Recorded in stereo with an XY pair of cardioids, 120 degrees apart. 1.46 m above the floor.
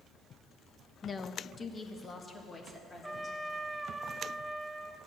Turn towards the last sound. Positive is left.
turn(degrees=-10)